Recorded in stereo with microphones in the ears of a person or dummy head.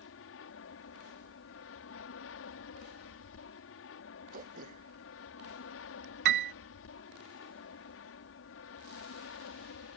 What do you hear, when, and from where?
0.0 s an aircraft: 65° left (ahead or behind)
4.3 s throat clearing: 40° right (ahead or behind)
6.2 s a piano: 55° right (ahead or behind)